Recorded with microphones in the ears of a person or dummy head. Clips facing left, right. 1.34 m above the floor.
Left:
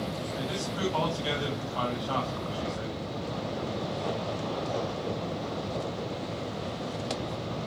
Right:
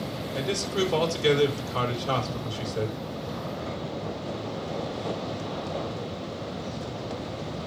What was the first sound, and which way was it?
A man speaking, 90° right.